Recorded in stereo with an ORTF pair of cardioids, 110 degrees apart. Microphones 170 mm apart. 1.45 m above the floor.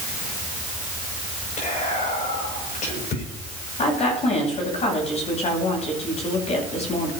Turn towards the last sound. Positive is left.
turn(degrees=40)